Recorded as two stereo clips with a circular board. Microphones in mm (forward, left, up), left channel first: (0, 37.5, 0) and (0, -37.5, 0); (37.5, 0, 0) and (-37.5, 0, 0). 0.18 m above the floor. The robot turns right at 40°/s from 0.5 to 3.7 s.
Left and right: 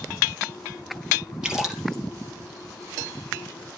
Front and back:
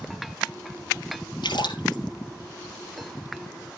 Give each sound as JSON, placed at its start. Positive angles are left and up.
{"t": 1.4, "sound": "a splash", "azimuth_deg": -10, "distance_m": 3.0}